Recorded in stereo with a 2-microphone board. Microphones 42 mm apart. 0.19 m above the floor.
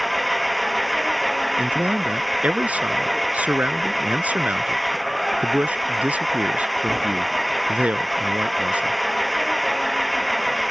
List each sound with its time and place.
0.0 s an engine running: centre (ahead or behind)
1.6 s a man speaking: 40° right (ahead or behind)